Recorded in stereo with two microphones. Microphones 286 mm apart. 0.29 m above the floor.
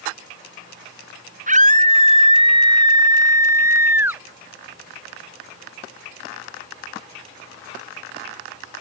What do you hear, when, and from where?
1.5 s a scream: 25° right (ahead or behind); by 4.2 s 5° right (ahead or behind)